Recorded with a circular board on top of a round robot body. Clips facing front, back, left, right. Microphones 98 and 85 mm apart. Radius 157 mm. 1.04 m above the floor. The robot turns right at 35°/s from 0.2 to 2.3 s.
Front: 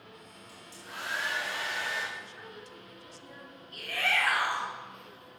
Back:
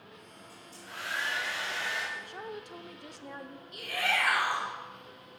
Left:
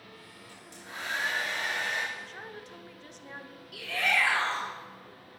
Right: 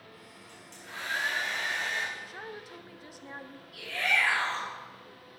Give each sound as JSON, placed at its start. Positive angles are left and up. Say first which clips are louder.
{"t": 0.5, "sound": "a hair dryer", "louder": "front 2 dB, left 1 dB", "azimuth_deg": 5, "distance_m": 5.0}
{"t": 2.1, "sound": "a woman speaking", "louder": "back 5 dB, right 1 dB", "azimuth_deg": -175, "distance_m": 0.8}
{"t": 3.7, "sound": "a shout", "louder": "even, left 1 dB", "azimuth_deg": 105, "distance_m": 3.0}